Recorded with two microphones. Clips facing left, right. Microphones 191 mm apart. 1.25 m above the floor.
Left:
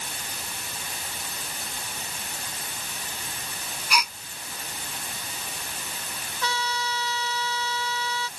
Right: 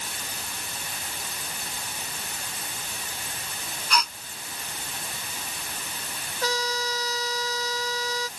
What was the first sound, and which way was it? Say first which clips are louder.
A gasp: right 1 dB; 10° left (ahead or behind).